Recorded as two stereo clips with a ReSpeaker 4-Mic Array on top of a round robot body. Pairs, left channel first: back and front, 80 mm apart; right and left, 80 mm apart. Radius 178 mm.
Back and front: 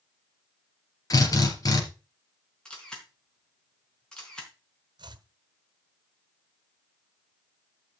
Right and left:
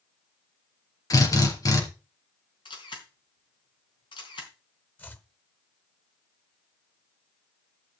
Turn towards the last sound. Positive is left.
turn(degrees=-25)